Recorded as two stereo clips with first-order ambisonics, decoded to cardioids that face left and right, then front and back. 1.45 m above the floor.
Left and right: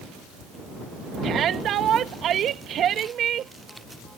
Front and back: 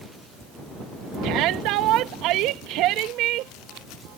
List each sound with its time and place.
1.2 s a shout: 145° right